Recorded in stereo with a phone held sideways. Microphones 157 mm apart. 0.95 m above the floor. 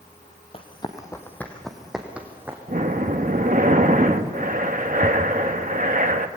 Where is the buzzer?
No buzzer in this recording.